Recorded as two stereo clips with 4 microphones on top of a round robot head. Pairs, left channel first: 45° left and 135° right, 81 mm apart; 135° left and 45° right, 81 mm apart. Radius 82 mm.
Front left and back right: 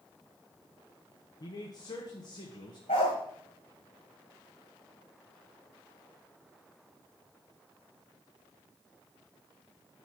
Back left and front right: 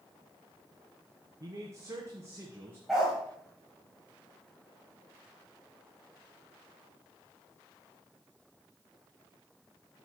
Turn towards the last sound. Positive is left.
turn(degrees=40)